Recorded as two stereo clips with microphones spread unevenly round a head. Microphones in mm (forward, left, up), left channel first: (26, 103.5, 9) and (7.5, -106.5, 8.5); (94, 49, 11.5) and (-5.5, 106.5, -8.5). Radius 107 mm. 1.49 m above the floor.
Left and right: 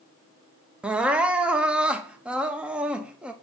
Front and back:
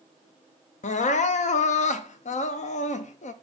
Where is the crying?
10° right, 0.8 m.